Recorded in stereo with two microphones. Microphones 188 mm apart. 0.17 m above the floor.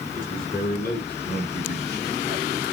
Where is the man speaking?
50° left (ahead or behind), 5.5 m; by 2.7 s 55° left (ahead or behind), 2.5 m.